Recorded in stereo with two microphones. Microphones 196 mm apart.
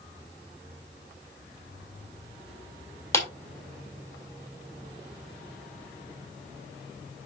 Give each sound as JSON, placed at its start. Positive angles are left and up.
{"t": 3.1, "sound": "a clap", "side_deg": 15, "distance_m": 2.5}